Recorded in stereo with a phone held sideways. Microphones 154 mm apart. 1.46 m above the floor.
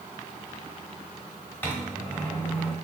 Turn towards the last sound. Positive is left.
turn(degrees=10)  # may be behind; listen again after turning